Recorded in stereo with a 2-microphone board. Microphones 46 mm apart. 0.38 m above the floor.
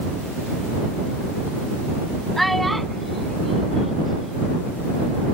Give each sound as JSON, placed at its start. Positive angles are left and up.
{"t": 2.4, "sound": "a child speaking", "side_deg": 5}